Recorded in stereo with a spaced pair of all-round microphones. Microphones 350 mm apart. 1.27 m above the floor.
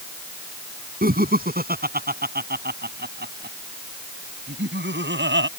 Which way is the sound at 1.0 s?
25° right (ahead or behind).